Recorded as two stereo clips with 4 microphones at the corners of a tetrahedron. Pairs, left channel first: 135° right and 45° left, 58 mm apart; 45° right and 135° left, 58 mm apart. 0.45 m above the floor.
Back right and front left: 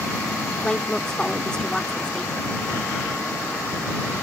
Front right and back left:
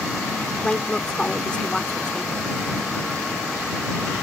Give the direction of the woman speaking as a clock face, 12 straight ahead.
3 o'clock.